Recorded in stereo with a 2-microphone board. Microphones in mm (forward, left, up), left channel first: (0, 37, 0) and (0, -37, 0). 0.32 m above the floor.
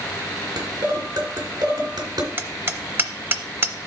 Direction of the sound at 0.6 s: 75° right (ahead or behind).